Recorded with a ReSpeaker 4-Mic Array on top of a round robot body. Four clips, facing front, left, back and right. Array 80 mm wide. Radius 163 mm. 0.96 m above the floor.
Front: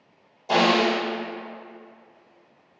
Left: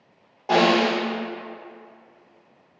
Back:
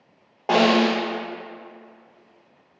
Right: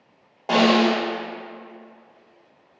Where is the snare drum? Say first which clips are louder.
Right 1 dB, back 2 dB; 170° right, 0.8 m.